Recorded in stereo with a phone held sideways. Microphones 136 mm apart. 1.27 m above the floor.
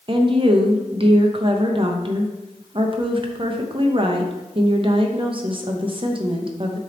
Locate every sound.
0.1 s a woman speaking: 40° right (ahead or behind), 0.8 m